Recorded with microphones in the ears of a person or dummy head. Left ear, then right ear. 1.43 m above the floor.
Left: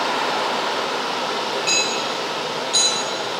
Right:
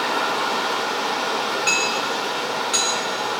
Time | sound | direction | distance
0.0 | running water | 45° right (ahead or behind) | 4 m
1.7 | hammering | 30° right (ahead or behind) | 5 m